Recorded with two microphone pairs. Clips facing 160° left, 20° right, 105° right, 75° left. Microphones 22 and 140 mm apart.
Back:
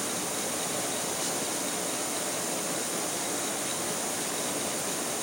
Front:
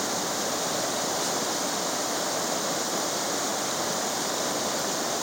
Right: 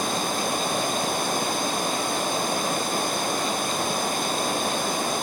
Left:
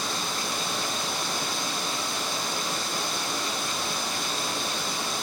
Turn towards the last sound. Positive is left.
turn(degrees=-65)